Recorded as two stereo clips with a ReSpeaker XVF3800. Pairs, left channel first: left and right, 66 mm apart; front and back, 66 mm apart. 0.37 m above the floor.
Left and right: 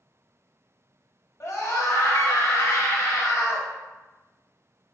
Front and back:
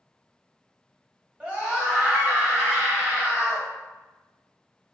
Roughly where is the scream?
Left.